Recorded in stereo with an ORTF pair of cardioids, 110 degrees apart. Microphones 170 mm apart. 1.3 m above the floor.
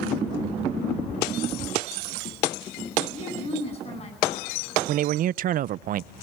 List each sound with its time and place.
3.1 s a woman speaking: 35° left, 9.5 m
4.9 s a man speaking: 55° right, 0.5 m